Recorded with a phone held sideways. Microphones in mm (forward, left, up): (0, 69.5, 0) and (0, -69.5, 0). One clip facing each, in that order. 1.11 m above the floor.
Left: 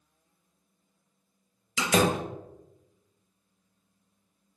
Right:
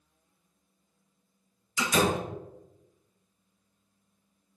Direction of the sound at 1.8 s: 85° left.